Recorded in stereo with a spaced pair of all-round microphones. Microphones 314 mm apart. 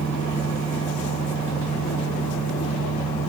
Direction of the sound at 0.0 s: 5° left (ahead or behind).